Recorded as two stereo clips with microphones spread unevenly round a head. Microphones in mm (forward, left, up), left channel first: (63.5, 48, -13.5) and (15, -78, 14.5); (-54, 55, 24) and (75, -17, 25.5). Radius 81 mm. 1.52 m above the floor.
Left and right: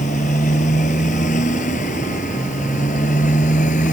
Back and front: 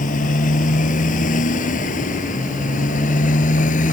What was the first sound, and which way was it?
A motorcycle, 120° left.